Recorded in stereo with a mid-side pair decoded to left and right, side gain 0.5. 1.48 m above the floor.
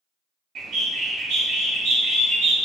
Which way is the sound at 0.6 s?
65° right.